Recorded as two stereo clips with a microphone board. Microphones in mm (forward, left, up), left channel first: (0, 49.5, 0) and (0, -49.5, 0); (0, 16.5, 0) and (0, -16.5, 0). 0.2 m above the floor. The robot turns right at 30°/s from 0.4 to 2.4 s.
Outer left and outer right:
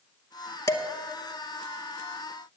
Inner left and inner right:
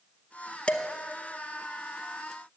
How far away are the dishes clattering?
About 0.9 m.